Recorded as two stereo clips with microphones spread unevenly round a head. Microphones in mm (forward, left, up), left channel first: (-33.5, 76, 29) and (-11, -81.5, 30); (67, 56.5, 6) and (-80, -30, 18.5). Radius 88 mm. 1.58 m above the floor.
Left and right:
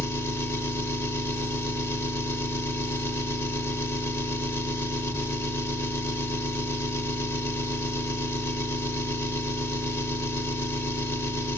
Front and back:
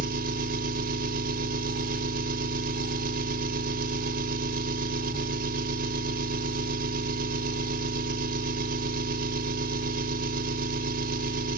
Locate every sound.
0.0 s an engine running: 170° left, 1.0 m